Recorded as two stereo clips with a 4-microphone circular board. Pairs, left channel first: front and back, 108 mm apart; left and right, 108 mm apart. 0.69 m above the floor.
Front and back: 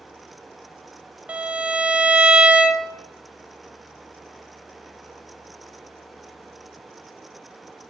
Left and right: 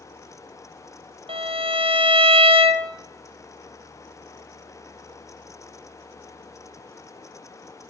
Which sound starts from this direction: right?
A violin, at 1.3 s.